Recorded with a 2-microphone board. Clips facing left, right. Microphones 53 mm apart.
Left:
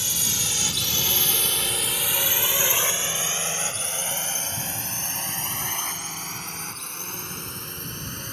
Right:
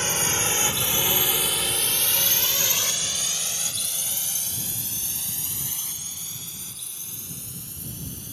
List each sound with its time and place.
0.0 s a drone: 45° right (ahead or behind); by 8.3 s 60° left (ahead or behind)